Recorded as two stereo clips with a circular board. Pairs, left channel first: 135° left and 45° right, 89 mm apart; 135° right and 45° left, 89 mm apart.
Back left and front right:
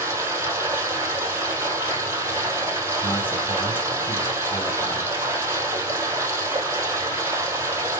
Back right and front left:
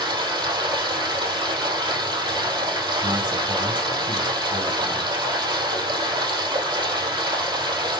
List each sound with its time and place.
0.0 s running water: 15° left, 2.5 m
3.0 s a man speaking: 70° left, 3 m